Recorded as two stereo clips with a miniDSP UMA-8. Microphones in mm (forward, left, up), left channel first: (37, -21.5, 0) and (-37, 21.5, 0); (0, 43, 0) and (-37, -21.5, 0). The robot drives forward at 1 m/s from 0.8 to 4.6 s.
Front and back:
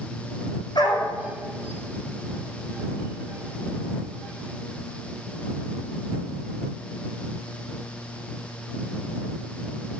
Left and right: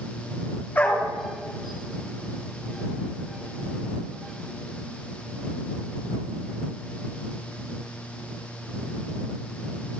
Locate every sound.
0.8 s a dog barking: 10° right, 7 m